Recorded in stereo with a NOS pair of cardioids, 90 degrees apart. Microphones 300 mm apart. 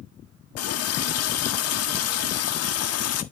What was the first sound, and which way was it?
A running tap, 55° left.